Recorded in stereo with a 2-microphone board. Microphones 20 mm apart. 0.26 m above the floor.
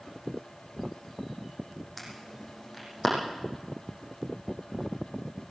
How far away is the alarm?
About 8 m.